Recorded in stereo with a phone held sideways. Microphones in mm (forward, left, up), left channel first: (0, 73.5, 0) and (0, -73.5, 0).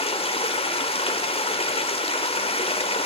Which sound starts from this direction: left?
Running water, at 0.0 s.